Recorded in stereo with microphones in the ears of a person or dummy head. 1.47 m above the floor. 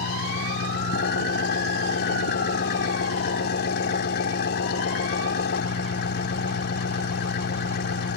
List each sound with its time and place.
0.0 s an engine running: 65° left (ahead or behind)